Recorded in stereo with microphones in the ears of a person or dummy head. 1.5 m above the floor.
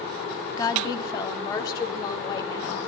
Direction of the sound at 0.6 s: 25° left (ahead or behind).